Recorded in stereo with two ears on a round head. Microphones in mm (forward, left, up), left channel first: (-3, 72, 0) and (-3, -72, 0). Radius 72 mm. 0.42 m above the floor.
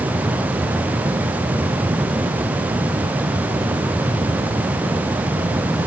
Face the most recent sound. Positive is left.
No sound to turn to.